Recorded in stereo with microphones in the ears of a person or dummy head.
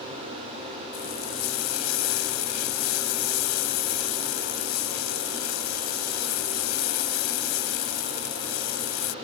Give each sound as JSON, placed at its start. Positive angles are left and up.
{"t": 0.9, "sound": "frying", "side_deg": 70}